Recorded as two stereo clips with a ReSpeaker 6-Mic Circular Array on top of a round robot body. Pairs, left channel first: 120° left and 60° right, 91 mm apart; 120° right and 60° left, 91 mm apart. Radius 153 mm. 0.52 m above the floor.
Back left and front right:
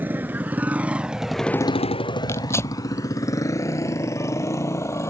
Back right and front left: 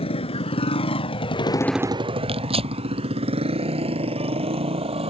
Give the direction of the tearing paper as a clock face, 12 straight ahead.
10 o'clock.